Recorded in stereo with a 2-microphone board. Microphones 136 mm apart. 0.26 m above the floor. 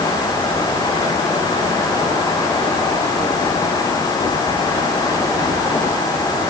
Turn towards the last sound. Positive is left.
No sound to turn to.